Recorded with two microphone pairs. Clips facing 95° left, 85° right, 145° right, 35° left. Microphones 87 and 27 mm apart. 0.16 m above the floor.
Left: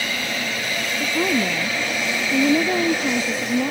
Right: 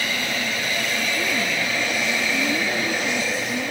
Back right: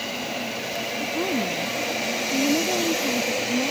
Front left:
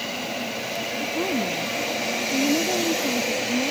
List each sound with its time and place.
1.0 s a woman speaking: 130° left